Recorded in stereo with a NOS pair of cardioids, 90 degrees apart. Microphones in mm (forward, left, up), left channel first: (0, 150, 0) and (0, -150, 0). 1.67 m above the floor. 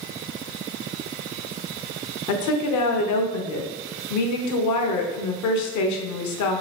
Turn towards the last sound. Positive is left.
turn(degrees=70)